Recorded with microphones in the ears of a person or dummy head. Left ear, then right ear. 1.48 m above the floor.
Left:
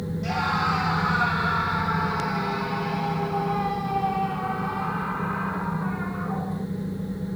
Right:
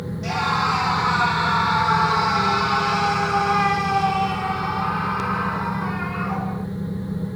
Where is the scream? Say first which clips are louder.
Right 3 dB; 20° right (ahead or behind); by 6.7 s 60° right (ahead or behind).